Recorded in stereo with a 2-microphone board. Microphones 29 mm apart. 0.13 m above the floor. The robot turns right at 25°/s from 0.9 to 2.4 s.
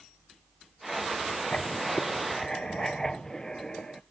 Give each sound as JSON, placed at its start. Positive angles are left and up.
{"t": 1.5, "sound": "writing", "side_deg": 40, "distance_m": 0.6}